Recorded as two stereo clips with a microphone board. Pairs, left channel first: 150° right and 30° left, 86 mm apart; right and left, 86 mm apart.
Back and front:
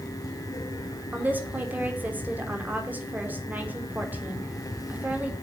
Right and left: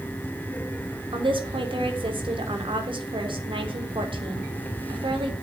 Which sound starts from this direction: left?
A woman speaking, at 1.1 s.